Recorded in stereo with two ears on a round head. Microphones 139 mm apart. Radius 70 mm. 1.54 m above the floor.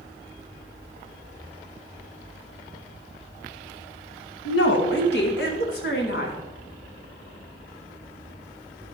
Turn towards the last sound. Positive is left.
turn(degrees=65)  # may be behind; listen again after turning